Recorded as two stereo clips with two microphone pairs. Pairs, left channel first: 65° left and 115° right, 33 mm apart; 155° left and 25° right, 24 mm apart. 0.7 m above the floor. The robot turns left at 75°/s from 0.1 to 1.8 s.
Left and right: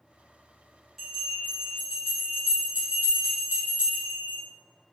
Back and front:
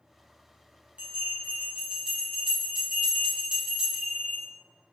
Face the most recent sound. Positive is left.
turn(degrees=-85)